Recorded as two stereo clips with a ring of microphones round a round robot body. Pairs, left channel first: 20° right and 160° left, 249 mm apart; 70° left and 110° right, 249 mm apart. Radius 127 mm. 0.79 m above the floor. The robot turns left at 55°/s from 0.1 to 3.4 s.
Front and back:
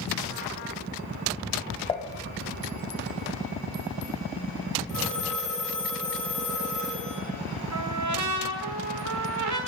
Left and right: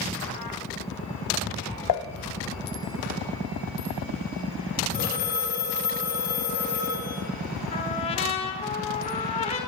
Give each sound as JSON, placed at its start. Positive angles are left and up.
{"t": 1.9, "sound": "dishes clattering", "azimuth_deg": 50, "distance_m": 0.6}
{"t": 4.9, "sound": "a phone ringing", "azimuth_deg": 125, "distance_m": 5.5}
{"t": 7.7, "sound": "a trumpet", "azimuth_deg": 135, "distance_m": 1.4}